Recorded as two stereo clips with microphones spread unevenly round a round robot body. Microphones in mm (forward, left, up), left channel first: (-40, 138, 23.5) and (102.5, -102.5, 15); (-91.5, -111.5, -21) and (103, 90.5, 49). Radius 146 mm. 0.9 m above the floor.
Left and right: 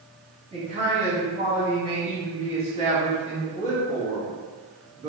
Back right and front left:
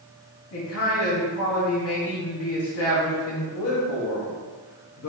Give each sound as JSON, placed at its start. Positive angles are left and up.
{"t": 0.5, "sound": "a man speaking", "azimuth_deg": -125, "distance_m": 1.5}